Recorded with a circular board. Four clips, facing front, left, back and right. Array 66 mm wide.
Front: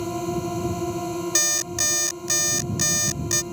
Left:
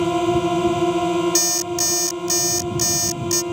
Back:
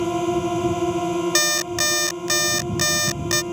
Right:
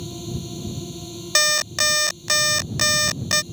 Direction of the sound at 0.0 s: 105° left.